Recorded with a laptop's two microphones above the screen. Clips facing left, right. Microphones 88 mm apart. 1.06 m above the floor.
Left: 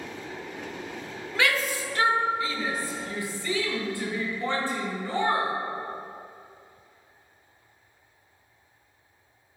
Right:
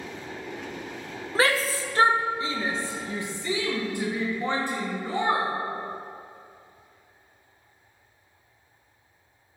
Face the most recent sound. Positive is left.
turn(degrees=-15)  # may be behind; listen again after turning